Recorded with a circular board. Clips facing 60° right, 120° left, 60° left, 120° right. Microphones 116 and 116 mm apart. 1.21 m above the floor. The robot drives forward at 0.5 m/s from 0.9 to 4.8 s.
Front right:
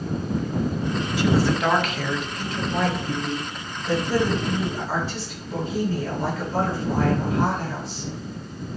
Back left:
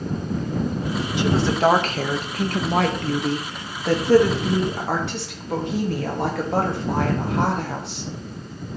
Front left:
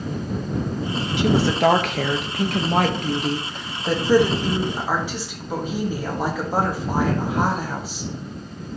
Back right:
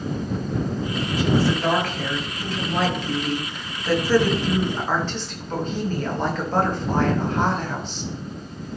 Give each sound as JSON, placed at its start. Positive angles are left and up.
{"t": 1.2, "sound": "a woman speaking", "azimuth_deg": 50, "distance_m": 1.2}